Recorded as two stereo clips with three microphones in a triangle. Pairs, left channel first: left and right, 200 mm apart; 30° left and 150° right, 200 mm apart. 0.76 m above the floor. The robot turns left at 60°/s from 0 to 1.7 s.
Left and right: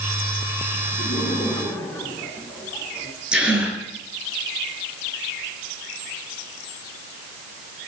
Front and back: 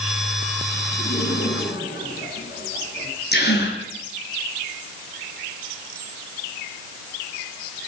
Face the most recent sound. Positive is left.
turn(degrees=-5)